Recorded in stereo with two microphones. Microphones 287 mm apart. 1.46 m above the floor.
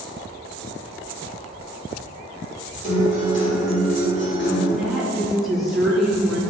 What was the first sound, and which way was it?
A guitar, 40° left (ahead or behind).